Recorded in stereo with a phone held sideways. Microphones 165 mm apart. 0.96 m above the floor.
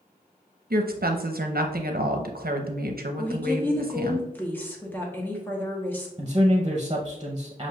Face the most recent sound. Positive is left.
turn(degrees=-30)  # may be behind; listen again after turning